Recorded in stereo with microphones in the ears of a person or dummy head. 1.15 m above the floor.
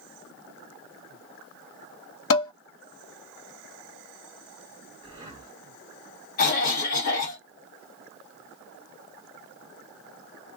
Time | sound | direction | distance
2.3 | dishes clattering | 60° left (ahead or behind) | 1.0 m
5.0 | breathing | 30° right (ahead or behind) | 1.3 m
6.4 | a cough | 45° left (ahead or behind) | 1.2 m